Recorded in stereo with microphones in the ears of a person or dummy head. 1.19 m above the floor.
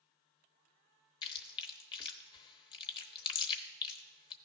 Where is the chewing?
30° left (ahead or behind), 0.8 m.